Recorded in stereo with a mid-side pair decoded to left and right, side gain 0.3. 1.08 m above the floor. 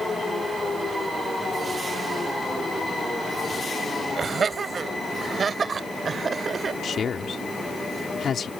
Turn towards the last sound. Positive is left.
turn(degrees=70)